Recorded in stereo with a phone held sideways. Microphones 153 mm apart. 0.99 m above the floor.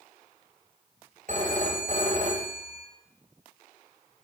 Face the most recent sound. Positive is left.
turn(degrees=-60)  # may be behind; listen again after turning